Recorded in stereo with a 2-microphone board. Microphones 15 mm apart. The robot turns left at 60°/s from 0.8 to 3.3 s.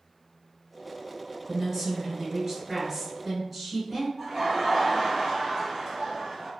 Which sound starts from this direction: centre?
Laughter, at 4.2 s.